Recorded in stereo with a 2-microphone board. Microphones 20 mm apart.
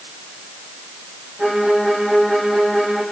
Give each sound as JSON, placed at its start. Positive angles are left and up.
{"t": 1.4, "sound": "a violin", "side_deg": -45, "distance_m": 5.5}